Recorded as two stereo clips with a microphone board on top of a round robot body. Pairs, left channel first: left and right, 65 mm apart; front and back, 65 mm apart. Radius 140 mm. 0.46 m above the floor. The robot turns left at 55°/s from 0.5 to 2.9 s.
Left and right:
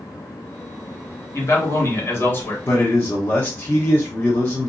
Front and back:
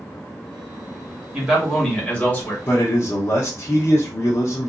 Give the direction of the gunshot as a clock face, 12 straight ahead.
I don't hear a gunshot.